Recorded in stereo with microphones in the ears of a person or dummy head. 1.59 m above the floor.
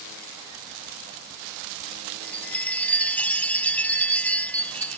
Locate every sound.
2.2 s a chime: 5° left (ahead or behind)